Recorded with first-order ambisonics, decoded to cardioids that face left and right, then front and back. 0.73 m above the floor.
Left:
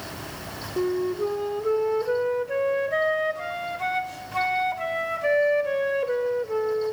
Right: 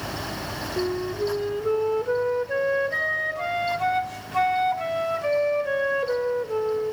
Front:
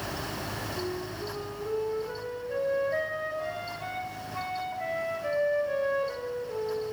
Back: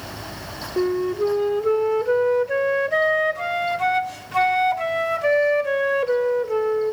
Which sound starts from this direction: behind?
A flute, at 0.8 s.